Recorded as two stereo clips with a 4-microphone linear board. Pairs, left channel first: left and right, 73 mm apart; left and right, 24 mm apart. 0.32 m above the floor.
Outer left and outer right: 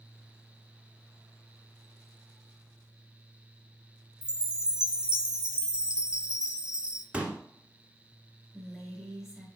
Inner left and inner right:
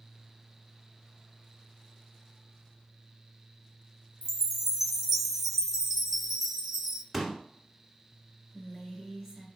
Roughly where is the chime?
Centre.